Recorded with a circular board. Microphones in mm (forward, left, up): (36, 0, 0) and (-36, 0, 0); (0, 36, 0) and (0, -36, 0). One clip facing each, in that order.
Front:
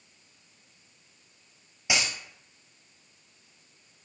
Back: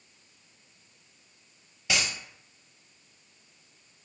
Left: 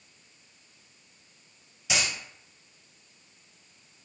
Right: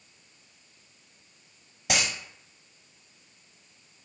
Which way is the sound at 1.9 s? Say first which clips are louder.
Front 1 dB, right 2 dB; 70° right.